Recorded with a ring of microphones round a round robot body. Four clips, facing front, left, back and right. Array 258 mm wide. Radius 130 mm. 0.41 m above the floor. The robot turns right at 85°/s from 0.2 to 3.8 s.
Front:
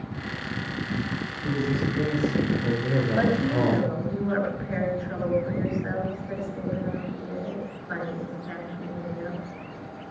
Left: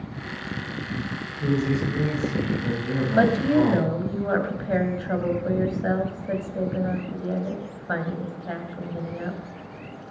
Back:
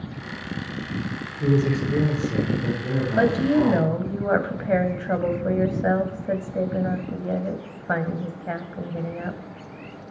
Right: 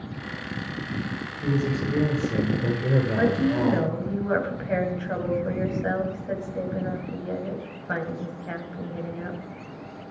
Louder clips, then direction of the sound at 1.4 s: Left 2 dB, back 5 dB; 165° left.